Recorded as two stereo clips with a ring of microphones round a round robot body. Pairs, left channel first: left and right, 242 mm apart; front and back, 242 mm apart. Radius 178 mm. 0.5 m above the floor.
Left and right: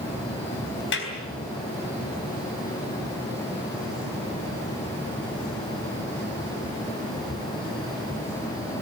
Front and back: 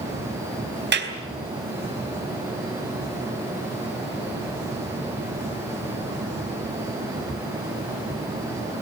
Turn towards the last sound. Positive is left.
turn(degrees=140)